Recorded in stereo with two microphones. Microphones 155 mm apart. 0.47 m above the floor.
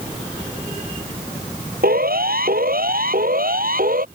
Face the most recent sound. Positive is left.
turn(degrees=-65)  # may be behind; listen again after turning